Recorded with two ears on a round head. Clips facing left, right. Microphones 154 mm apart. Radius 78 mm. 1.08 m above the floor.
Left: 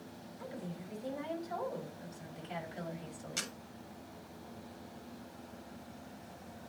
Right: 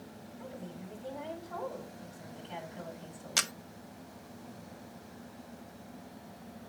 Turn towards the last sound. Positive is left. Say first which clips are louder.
# right 8 dB
turn(degrees=-75)  # may be behind; listen again after turning